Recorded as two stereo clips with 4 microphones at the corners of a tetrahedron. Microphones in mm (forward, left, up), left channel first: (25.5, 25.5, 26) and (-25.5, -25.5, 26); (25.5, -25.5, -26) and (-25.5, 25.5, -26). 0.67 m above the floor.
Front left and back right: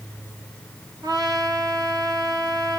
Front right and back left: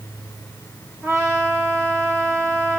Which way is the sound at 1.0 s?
165° right.